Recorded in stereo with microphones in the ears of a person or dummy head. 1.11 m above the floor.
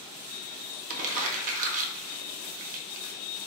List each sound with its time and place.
0.9 s crumpling: 35° right (ahead or behind), 0.7 m